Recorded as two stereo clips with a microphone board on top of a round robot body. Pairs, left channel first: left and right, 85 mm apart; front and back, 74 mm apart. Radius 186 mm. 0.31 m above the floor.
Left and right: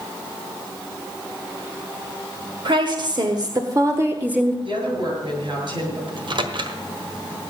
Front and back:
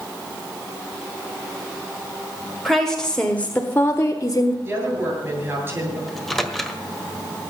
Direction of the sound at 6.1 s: 85° right.